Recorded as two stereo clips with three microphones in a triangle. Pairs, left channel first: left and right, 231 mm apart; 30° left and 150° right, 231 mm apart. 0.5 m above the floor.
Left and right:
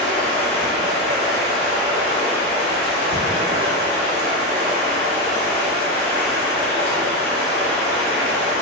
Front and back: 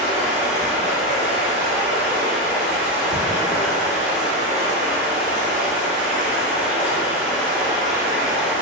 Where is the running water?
125° left, 1.0 m.